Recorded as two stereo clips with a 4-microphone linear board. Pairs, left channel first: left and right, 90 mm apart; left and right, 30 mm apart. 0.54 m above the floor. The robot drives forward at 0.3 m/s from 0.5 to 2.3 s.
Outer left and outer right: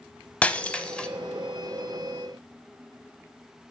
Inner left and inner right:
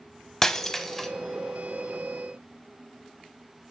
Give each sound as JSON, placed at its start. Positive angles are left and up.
{"t": 0.4, "sound": "breaking glass", "side_deg": 15, "distance_m": 0.6}